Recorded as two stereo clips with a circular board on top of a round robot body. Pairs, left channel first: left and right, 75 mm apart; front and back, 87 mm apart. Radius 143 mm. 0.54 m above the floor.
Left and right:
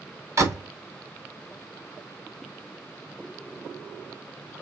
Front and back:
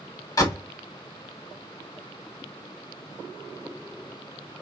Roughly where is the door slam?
Ahead right.